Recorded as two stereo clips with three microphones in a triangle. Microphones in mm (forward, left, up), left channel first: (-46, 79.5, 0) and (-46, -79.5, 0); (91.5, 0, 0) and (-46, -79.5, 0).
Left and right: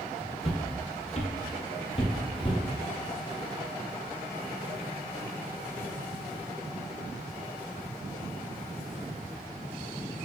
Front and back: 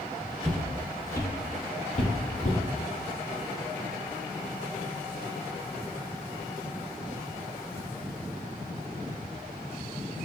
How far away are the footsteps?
About 1.2 m.